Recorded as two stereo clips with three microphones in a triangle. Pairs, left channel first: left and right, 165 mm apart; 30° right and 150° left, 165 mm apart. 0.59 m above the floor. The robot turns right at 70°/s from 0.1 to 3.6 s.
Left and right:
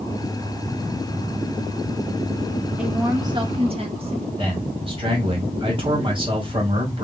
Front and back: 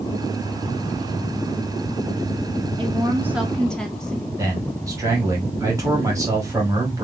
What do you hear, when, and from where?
2.8 s a woman speaking: 170° right, 1.2 m; by 4.2 s 115° right, 1.2 m
4.4 s a man speaking: 140° right, 2 m